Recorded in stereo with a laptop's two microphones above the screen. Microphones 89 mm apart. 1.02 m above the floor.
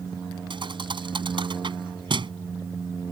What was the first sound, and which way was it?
A thud, 70° right (ahead or behind).